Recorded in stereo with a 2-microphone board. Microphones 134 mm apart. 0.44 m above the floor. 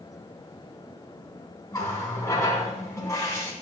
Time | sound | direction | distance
1.7 | a running tap | 25° left (ahead or behind) | 3 m